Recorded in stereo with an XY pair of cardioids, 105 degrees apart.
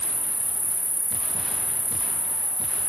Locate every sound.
0.0 s an insect: straight ahead, 1.5 m